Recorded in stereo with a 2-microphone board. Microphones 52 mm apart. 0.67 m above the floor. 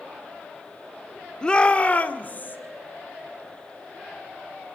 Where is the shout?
15° left (ahead or behind), 1.5 m; by 2.6 s 35° left (ahead or behind), 3 m.